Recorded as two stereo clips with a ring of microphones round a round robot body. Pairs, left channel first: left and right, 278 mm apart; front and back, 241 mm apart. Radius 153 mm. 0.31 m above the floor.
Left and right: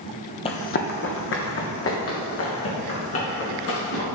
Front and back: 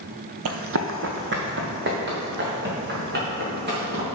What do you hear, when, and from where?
0.5 s running footsteps: 160° left, 0.7 m; by 4.0 s 130° left, 5 m